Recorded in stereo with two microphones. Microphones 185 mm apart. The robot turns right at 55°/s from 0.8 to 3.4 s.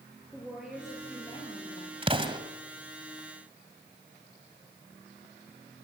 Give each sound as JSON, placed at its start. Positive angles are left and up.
{"t": 0.3, "sound": "a woman speaking", "azimuth_deg": -5, "distance_m": 5.0}
{"t": 2.0, "sound": "an explosion", "side_deg": -30, "distance_m": 1.8}